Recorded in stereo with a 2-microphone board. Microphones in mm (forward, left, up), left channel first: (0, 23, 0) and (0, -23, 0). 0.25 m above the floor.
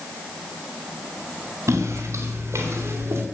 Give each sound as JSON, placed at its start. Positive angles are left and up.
{"t": 1.7, "sound": "footsteps", "side_deg": -80, "distance_m": 3.5}